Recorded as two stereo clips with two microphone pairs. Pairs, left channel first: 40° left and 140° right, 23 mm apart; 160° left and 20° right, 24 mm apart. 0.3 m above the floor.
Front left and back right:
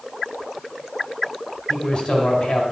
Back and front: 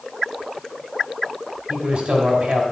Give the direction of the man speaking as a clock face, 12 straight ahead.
12 o'clock.